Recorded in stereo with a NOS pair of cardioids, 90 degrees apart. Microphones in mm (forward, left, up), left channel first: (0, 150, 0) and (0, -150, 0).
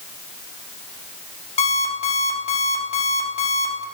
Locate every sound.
1.6 s an alarm clock: 20° left, 1.8 m